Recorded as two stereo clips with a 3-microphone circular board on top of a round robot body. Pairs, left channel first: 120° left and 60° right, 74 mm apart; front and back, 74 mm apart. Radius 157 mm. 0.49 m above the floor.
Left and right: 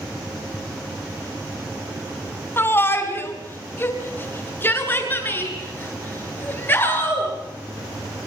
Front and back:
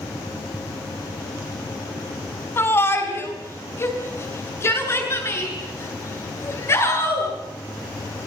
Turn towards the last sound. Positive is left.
turn(degrees=55)